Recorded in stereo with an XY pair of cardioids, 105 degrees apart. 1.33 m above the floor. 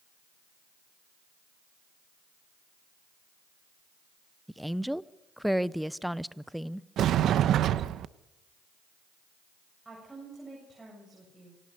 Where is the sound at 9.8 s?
15° right, 8 m.